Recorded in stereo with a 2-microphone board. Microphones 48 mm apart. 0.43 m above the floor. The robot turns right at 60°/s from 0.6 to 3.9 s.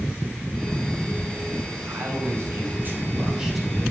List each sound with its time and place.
1.9 s a man speaking: 105° right, 2.5 m; by 3.9 s 15° left, 2.5 m